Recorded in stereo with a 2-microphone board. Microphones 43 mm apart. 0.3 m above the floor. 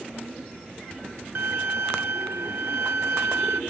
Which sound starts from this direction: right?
A violin, at 1.4 s.